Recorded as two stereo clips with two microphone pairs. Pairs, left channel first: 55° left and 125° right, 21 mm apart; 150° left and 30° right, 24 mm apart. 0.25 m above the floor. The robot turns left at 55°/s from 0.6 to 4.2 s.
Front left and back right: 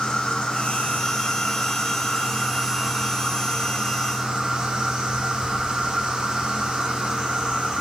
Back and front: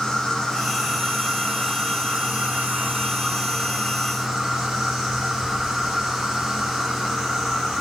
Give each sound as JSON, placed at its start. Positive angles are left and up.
{"t": 0.0, "sound": "an insect", "azimuth_deg": 75, "distance_m": 1.2}